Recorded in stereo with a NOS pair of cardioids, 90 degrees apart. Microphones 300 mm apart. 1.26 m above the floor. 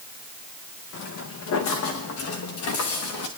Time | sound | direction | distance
0.9 | footsteps | 70° left | 4 m